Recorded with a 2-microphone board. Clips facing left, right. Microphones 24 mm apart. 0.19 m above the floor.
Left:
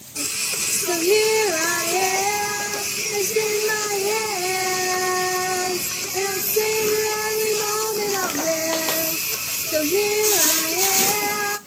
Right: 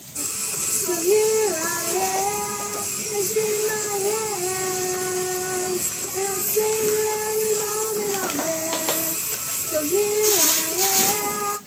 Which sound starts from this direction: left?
Singing, at 0.1 s.